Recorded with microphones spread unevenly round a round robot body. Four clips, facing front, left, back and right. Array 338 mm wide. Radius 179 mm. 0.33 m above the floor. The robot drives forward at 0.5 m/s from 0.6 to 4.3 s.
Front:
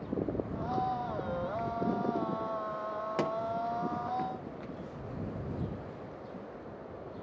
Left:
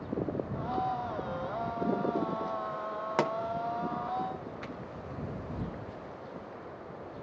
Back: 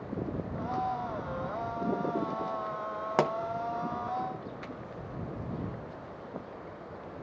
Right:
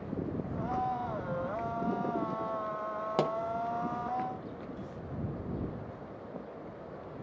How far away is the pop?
About 0.7 m.